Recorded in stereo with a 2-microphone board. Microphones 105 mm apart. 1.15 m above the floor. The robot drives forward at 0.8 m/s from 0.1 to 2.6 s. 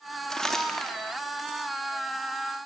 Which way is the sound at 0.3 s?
5° left (ahead or behind).